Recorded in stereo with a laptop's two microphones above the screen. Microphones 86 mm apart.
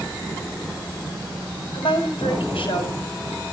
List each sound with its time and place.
1.7 s a woman speaking: 85° left, 4.5 m